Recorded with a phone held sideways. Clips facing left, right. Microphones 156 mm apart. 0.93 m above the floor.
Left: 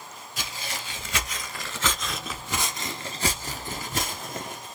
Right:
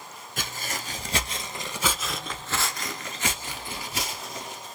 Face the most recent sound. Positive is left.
turn(degrees=55)  # may be behind; listen again after turning